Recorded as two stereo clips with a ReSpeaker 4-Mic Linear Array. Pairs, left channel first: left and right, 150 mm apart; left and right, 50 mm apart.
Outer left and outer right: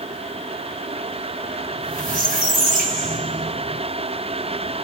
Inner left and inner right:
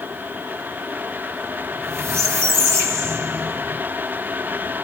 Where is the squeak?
65° right (ahead or behind), 2.5 m.